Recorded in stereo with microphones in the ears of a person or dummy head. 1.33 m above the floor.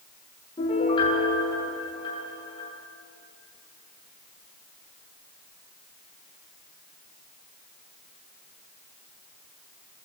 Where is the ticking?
I don't hear ticking.